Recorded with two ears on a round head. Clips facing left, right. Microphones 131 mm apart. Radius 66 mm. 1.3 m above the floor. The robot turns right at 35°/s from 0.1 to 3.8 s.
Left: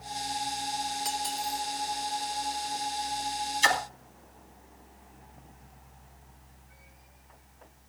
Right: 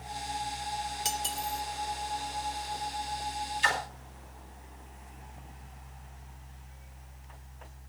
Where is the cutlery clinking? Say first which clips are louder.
Left 2 dB; 30° right (ahead or behind), 1.2 m; by 1.6 s 10° right (ahead or behind), 1.2 m.